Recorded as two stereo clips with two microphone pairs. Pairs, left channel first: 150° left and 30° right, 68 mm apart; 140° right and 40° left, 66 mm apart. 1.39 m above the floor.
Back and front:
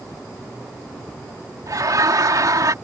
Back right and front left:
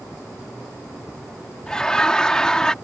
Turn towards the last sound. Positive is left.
turn(degrees=-60)